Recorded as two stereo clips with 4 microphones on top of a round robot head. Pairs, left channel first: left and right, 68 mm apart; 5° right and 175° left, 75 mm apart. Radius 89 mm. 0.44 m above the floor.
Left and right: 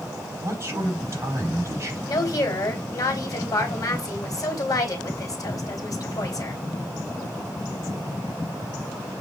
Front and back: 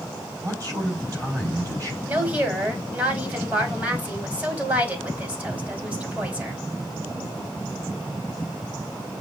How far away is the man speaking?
About 4 m.